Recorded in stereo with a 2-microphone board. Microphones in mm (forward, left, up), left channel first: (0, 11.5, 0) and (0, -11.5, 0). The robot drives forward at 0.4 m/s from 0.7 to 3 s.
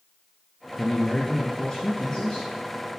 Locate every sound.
0.8 s a man speaking: 25° left (ahead or behind), 2 m; by 2.5 s 20° left (ahead or behind), 2.5 m